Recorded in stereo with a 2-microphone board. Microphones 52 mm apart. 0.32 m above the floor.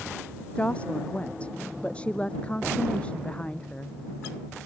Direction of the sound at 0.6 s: 20° left (ahead or behind).